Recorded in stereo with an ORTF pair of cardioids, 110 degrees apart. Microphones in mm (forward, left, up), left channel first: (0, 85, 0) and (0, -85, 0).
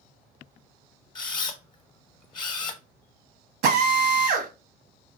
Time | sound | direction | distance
1.1 | a camera shutter | 30° left | 0.7 m
3.6 | a drill | 70° right | 0.8 m